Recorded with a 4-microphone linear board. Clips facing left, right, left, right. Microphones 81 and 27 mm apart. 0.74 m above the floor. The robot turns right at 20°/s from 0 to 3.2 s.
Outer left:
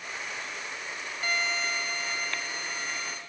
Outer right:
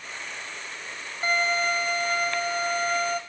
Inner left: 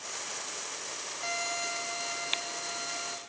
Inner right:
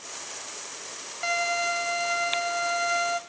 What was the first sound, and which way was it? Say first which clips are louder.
A violin: outer right 6 dB, inner right 9 dB; 140° right.